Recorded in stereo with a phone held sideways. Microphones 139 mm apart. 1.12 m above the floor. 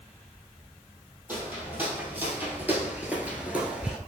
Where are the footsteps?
15° right (ahead or behind), 1.9 m; by 4.0 s 5° right (ahead or behind), 1.1 m.